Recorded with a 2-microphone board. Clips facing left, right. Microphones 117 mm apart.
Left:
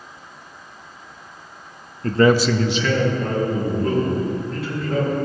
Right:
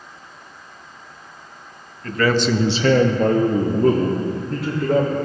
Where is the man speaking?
40° left (ahead or behind), 0.7 m; by 5.2 s 80° right, 2.5 m.